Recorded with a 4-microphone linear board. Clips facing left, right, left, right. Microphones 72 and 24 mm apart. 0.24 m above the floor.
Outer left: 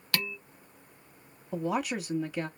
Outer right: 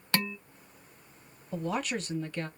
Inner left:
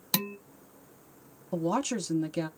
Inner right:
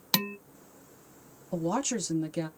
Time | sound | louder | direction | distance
0.1 | dishes clattering | outer right 3 dB, inner right 3 dB | 25° right (ahead or behind) | 0.7 m
1.5 | a woman speaking | outer left 2 dB, inner left 1 dB | 10° left (ahead or behind) | 1.0 m